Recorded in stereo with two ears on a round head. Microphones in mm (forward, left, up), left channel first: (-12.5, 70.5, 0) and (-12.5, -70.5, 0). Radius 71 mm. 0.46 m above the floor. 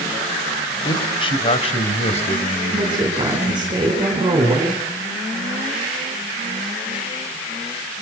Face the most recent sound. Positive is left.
turn(degrees=-30)  # may be behind; listen again after turning